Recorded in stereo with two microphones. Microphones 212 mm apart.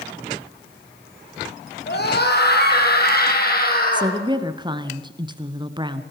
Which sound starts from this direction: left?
A scream, at 1.9 s.